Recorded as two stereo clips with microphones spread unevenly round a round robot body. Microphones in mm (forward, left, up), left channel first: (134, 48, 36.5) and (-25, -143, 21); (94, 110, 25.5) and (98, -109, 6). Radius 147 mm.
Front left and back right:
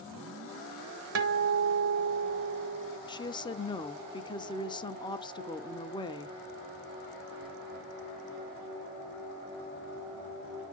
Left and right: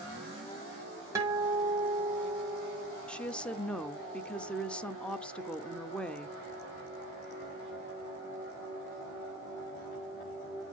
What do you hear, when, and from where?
1.1 s a guitar: 165° right, 1.3 m
3.1 s a woman speaking: straight ahead, 0.8 m